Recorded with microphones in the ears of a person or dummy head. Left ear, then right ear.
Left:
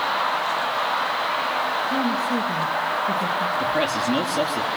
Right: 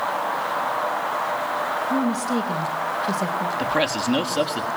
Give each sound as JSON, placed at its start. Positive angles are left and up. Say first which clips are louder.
{"t": 1.9, "sound": "a woman speaking", "louder": "left 1 dB", "side_deg": -85, "distance_m": 2.5}
{"t": 3.6, "sound": "a man speaking", "louder": "even", "side_deg": -20, "distance_m": 3.5}